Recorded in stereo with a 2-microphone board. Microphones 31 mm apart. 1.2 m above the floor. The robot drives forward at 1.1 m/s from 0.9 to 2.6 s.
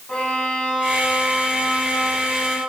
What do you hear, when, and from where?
0.1 s a violin: 30° left (ahead or behind), 9 m; by 2.6 s 25° left (ahead or behind), 11 m